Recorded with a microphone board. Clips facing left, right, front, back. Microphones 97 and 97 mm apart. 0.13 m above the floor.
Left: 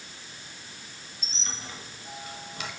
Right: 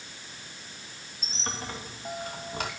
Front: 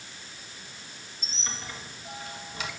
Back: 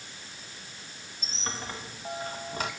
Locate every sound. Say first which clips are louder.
1.2 s a squeak: right 6 dB, back 4 dB; 135° right, 2.5 m